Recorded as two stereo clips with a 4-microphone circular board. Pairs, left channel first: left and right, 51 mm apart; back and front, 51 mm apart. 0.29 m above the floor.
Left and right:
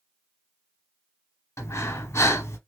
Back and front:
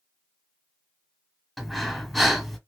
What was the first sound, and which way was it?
Breathing, 90° left.